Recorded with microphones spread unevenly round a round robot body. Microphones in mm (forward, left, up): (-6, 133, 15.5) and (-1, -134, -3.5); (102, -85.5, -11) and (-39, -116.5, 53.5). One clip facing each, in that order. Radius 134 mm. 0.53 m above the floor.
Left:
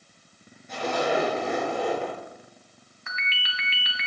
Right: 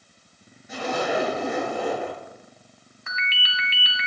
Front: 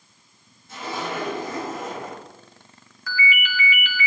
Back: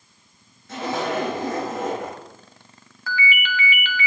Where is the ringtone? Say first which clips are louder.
Right 3 dB, back 2 dB; 140° right, 1.7 m.